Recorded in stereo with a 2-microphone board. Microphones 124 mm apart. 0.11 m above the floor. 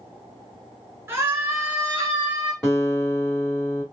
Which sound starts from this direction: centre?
A guitar, at 2.6 s.